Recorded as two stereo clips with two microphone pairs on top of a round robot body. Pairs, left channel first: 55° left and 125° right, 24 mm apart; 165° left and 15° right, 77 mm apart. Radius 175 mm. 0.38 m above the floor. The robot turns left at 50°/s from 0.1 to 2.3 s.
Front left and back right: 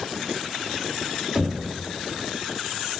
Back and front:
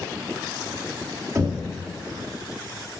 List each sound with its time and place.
1.4 s knocking: 55° right, 1.8 m; by 1.7 s 70° right, 1.8 m